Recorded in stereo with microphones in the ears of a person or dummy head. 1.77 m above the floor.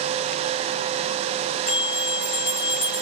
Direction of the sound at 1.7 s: 75° left (ahead or behind).